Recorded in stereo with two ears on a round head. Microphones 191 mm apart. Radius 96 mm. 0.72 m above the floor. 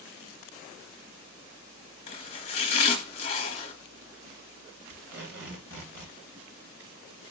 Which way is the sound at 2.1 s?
30° left (ahead or behind).